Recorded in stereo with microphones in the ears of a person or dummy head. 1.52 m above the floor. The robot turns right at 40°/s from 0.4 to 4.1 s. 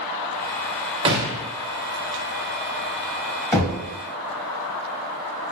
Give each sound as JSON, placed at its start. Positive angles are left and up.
{"t": 1.1, "sound": "a gunshot", "side_deg": -25, "distance_m": 0.8}
{"t": 3.5, "sound": "knocking", "side_deg": 10, "distance_m": 1.0}